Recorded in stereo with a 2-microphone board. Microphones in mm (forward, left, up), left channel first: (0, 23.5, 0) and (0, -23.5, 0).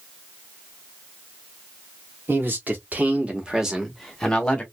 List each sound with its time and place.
2.3 s a man speaking: 50° right (ahead or behind), 1.4 m; by 4.6 s 25° left (ahead or behind), 1.1 m